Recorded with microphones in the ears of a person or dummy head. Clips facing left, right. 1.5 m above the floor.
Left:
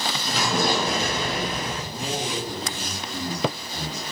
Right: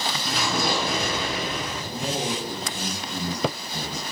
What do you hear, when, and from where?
0.3 s an explosion: centre (ahead or behind), 1.4 m
1.9 s a man speaking: 25° right (ahead or behind), 1.9 m